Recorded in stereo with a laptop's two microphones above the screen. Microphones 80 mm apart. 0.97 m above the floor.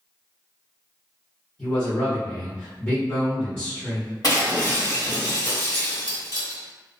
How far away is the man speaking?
About 1.2 m.